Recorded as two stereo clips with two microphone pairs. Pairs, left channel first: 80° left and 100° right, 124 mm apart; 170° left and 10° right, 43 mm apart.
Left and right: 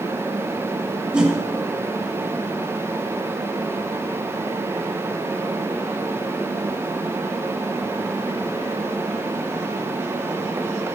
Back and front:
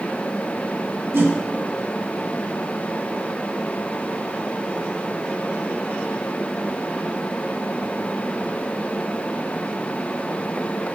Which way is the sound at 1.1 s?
20° right.